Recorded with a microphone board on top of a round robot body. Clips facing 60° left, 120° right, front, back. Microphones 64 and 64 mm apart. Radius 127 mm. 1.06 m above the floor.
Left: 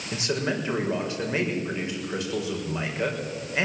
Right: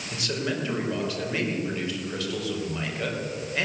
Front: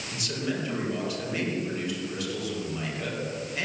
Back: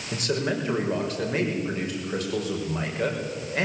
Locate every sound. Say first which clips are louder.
0.1 s a man speaking: left 2 dB, back 5 dB; 130° left, 5 m